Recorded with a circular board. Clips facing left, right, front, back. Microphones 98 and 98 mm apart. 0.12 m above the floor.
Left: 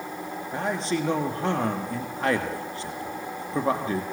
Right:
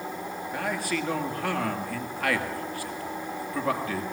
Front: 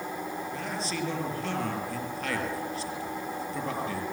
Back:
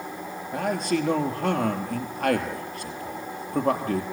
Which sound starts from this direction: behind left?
A man speaking, at 0.5 s.